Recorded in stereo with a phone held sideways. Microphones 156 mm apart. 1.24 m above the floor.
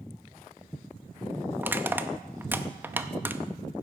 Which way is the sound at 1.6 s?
10° right (ahead or behind).